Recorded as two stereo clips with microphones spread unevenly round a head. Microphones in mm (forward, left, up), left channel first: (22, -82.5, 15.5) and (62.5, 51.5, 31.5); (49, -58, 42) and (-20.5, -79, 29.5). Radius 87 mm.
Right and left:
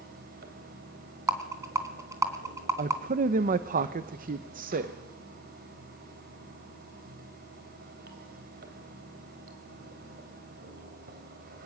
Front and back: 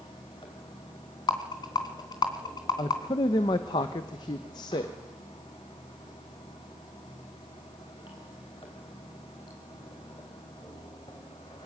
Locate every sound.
0.0 s running water: 65° left, 3.5 m
1.3 s a rattle: 5° left, 3 m
2.8 s a man speaking: 55° left, 0.9 m